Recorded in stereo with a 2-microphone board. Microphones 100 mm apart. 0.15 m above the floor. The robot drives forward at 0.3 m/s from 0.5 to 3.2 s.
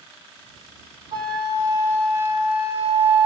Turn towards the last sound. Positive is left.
turn(degrees=-20)  # may be behind; listen again after turning